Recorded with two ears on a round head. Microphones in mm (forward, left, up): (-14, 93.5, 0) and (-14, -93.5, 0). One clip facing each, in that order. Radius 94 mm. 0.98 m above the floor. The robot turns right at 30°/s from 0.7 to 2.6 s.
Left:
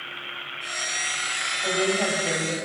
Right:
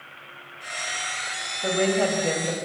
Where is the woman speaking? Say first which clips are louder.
Right 3 dB; 40° right (ahead or behind), 5 m; by 2.6 s 70° right (ahead or behind), 5 m.